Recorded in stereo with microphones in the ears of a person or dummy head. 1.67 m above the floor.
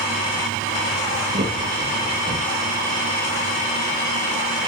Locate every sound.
1.3 s laughter: 45° right (ahead or behind), 2.0 m; by 2.7 s 35° right (ahead or behind), 3 m